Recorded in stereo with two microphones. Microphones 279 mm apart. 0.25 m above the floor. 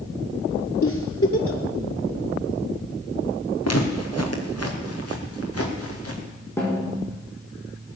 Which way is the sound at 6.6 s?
10° left (ahead or behind).